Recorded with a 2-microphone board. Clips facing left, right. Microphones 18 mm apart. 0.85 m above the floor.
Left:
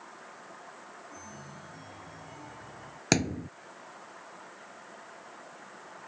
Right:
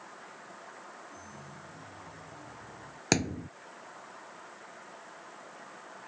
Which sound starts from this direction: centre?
A thud, at 3.1 s.